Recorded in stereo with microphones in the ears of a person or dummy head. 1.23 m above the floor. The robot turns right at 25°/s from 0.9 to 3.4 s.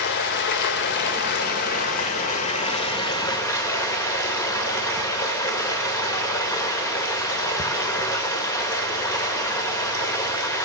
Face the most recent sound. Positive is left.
turn(degrees=160)